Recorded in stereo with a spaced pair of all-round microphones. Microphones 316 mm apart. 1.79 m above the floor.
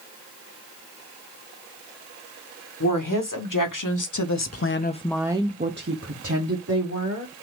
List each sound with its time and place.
2.8 s a woman speaking: 80° left, 1.7 m; by 7.3 s 60° right (ahead or behind), 1.8 m